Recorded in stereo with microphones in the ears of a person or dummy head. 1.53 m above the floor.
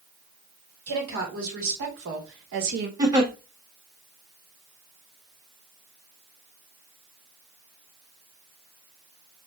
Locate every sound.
0.9 s a woman speaking: 75° right (ahead or behind), 1.6 m; by 2.9 s 50° right (ahead or behind), 0.6 m
3.0 s a giggle: 20° right (ahead or behind), 0.8 m